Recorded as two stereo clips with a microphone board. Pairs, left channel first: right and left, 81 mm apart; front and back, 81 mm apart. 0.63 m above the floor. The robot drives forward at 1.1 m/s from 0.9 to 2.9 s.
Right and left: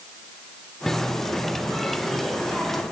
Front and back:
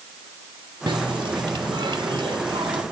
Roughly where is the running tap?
Behind.